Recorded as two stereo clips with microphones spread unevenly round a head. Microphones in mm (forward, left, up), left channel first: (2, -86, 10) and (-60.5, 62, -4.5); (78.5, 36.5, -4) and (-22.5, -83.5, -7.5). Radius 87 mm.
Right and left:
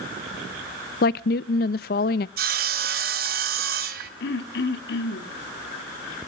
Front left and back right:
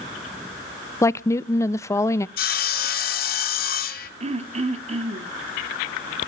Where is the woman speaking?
25° right, 0.5 m.